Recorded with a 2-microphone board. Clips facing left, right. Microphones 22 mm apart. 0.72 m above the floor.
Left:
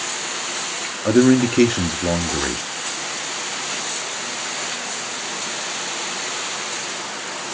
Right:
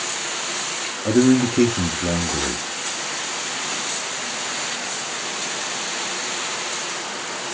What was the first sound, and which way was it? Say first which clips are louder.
A man speaking: left 2 dB; 35° left (ahead or behind).